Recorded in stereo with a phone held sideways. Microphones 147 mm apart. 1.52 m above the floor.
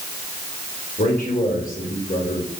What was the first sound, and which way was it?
A man speaking, 75° left (ahead or behind).